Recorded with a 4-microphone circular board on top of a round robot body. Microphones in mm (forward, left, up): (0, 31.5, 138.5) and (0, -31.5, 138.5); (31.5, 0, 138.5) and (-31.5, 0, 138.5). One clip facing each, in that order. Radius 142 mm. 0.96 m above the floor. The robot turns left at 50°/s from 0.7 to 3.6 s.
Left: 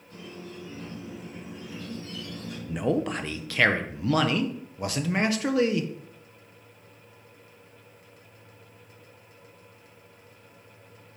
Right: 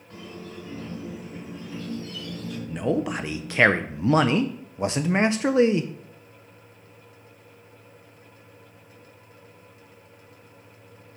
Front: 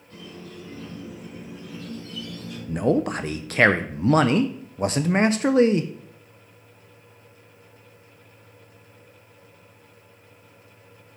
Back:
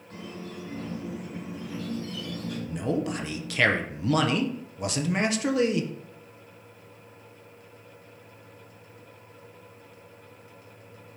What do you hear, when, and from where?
0.1 s a squeak: 135° right, 3.5 m; by 2.6 s 130° left, 3.5 m
2.7 s a man speaking: 10° left, 0.5 m; by 5.9 s 35° right, 0.5 m